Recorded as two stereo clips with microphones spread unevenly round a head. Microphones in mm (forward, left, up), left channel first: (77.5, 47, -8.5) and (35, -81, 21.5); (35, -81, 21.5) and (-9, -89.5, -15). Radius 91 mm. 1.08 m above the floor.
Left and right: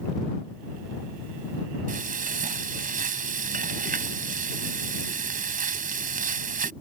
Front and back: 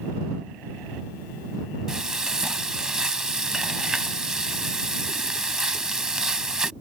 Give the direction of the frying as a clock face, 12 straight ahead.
3 o'clock.